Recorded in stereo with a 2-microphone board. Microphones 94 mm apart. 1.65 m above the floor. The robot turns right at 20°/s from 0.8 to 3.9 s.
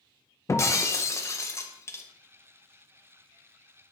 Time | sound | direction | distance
0.5 | breaking glass | 35° left (ahead or behind) | 0.8 m